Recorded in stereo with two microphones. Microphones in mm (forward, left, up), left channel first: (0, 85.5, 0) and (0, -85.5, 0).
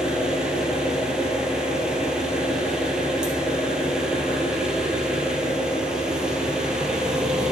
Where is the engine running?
5° right (ahead or behind), 1.3 m.